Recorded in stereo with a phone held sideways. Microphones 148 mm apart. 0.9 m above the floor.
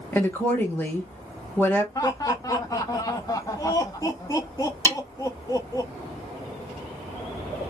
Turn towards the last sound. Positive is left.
turn(degrees=20)  # may be behind; listen again after turning